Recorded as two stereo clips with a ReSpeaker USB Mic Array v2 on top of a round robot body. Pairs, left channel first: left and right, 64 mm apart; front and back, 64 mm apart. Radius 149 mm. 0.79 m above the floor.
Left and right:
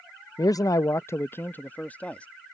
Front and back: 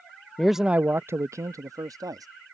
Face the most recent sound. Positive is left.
turn(degrees=160)